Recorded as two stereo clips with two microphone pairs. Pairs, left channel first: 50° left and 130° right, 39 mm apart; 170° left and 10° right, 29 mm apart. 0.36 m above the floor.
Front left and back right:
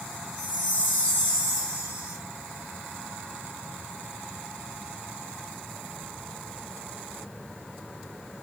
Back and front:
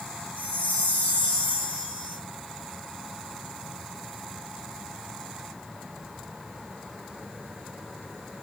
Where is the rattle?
No rattle in this recording.